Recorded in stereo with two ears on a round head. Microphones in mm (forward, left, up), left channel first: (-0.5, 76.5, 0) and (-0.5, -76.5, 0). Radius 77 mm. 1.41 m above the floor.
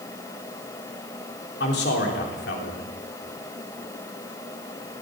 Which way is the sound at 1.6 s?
70° left (ahead or behind).